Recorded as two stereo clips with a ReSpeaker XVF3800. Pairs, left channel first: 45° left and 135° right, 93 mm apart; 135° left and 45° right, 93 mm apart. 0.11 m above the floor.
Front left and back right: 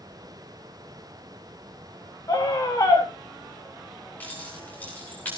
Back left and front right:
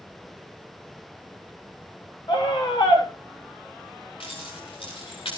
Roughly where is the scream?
Left.